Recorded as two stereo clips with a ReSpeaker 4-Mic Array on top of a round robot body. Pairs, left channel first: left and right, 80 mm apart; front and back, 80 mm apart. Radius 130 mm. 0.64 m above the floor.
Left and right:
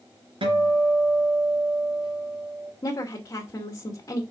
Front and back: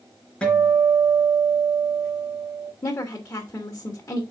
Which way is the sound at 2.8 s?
45° left.